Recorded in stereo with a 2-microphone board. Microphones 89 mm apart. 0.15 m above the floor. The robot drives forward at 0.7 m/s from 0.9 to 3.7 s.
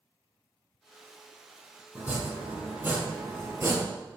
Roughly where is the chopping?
Centre.